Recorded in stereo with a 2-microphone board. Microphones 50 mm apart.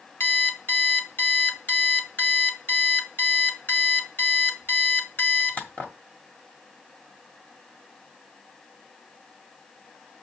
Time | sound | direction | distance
0.2 | an alarm clock | 40° left (ahead or behind) | 1.9 m